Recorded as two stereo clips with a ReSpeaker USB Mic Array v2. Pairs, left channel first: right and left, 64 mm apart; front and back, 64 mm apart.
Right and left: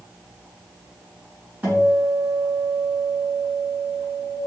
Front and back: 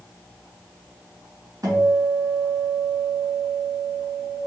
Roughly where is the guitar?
Behind left.